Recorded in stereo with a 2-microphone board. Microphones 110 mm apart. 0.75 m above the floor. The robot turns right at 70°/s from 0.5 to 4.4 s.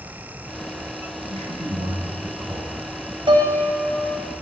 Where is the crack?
No crack in this recording.